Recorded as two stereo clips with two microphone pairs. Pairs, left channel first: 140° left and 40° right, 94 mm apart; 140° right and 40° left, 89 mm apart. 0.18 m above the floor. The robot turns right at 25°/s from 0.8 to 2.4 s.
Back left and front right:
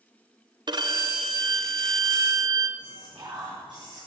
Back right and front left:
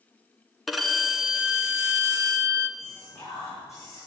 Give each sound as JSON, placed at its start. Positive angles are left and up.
{"t": 0.7, "sound": "a violin", "azimuth_deg": -45, "distance_m": 2.5}
{"t": 2.8, "sound": "whispering", "azimuth_deg": -80, "distance_m": 10.0}